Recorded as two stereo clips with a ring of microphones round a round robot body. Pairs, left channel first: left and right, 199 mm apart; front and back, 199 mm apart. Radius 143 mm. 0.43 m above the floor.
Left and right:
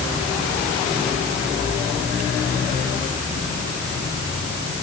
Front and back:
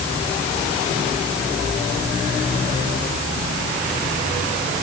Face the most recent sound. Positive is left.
No sound to turn to.